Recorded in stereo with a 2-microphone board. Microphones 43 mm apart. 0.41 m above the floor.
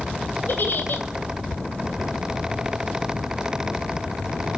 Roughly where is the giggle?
Left.